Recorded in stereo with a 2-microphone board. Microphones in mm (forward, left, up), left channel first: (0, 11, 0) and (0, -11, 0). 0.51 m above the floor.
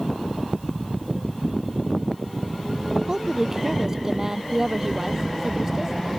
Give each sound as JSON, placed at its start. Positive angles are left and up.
{"t": 3.1, "sound": "a woman speaking", "side_deg": -20}